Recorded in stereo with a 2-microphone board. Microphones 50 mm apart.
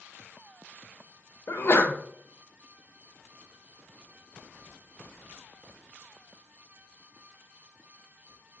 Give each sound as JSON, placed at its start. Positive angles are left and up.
{"t": 1.5, "sound": "a sneeze", "side_deg": 50, "distance_m": 0.6}